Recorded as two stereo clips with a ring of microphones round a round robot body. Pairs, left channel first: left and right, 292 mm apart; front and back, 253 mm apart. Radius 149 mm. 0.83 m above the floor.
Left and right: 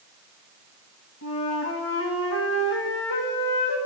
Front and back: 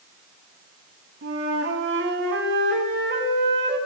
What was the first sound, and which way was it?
A flute, 135° left.